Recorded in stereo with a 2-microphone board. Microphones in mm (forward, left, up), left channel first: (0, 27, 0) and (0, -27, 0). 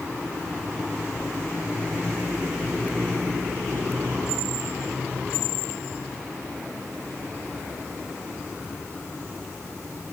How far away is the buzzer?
I don't hear a buzzer.